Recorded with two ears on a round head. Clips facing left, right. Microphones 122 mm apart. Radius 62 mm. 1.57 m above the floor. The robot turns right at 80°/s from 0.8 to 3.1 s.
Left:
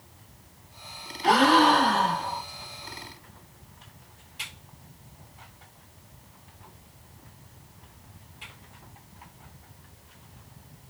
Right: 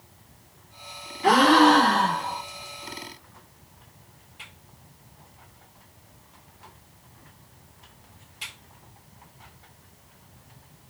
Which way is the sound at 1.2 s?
120° right.